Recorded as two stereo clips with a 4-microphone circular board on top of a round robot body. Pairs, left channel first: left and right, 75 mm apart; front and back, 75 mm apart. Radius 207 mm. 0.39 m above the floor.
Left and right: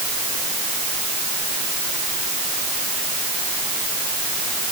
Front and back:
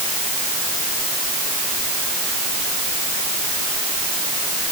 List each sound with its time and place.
Only background noise.